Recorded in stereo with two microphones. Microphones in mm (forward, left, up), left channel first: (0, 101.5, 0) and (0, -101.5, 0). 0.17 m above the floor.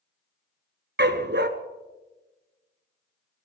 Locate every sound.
1.0 s a dog barking: 55° right (ahead or behind), 0.8 m